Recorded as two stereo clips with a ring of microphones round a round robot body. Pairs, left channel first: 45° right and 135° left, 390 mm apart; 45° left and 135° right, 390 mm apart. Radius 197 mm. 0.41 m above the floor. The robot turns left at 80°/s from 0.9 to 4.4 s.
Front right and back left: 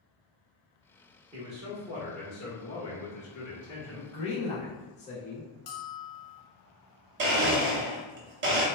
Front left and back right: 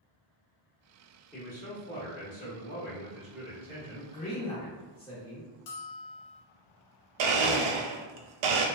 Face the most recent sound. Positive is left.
turn(degrees=-160)